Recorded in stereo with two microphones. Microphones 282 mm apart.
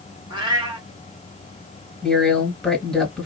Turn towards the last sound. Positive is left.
turn(degrees=0)  # may be behind; listen again after turning